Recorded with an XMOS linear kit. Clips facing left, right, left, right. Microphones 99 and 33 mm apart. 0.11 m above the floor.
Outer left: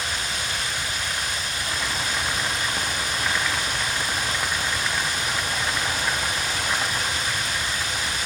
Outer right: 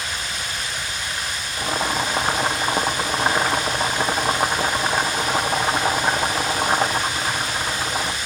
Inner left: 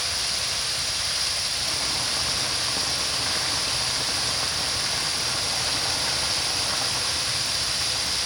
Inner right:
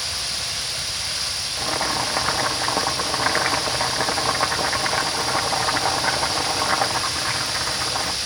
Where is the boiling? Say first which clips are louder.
Outer right 9 dB, inner right 4 dB; 50° right (ahead or behind), 2.5 m.